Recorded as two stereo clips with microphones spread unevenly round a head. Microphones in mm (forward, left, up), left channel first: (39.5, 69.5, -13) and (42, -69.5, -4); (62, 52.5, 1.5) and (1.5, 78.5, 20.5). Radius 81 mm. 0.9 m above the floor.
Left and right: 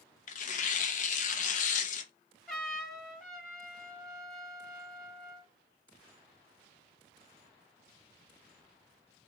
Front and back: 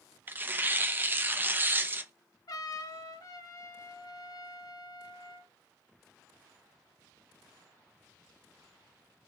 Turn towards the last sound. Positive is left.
turn(degrees=0)